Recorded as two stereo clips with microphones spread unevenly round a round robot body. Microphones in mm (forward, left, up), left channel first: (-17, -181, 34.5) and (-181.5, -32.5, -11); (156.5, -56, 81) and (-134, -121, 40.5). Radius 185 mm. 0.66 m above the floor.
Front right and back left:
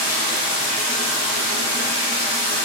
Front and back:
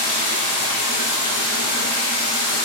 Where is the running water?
50° right, 0.7 m.